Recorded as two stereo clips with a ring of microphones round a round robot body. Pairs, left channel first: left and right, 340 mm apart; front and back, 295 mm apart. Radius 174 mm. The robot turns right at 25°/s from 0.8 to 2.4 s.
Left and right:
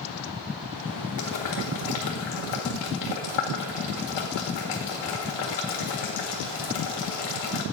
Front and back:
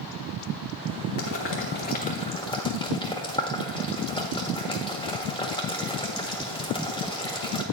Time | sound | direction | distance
1.2 | boiling | 45° left | 1.5 m